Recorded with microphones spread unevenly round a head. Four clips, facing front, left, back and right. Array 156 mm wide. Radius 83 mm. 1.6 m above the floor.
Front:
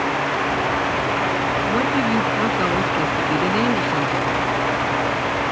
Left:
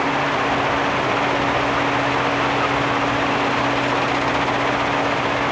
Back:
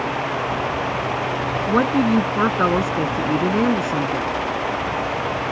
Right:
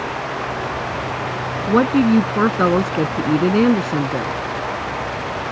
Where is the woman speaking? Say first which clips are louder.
Right 5 dB, back 5 dB; 110° right; by 4.4 s 95° right.